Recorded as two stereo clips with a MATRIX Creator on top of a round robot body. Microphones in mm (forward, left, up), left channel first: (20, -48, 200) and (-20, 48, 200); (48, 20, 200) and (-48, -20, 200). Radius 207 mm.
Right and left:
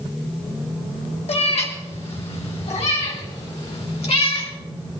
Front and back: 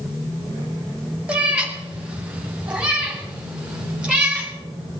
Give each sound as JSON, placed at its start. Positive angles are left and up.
{"t": 1.3, "sound": "a cat meowing", "azimuth_deg": -80, "distance_m": 2.0}